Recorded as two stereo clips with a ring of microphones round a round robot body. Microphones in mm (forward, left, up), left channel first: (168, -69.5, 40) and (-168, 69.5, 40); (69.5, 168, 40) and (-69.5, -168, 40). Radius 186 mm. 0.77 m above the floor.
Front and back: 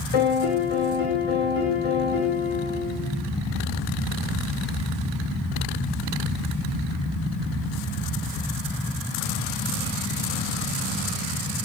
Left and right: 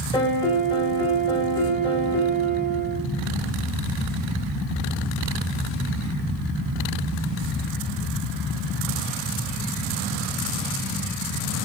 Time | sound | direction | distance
0.1 | a piano | 10° right | 1.9 m